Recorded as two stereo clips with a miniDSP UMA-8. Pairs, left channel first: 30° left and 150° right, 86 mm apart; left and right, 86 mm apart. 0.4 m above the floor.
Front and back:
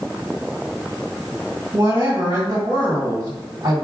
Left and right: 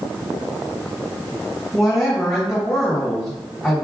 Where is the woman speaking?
Straight behind, 1.6 m.